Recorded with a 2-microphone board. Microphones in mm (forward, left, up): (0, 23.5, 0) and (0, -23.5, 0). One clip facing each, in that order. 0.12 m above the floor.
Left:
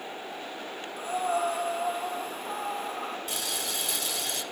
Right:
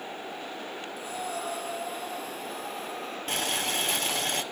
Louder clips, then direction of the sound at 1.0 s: Left 8 dB; 45° left (ahead or behind).